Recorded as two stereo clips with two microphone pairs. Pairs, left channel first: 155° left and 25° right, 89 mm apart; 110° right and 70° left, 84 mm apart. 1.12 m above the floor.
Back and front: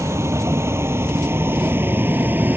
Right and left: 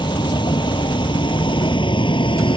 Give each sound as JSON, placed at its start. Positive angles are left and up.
{"t": 0.0, "sound": "a vehicle", "azimuth_deg": -85}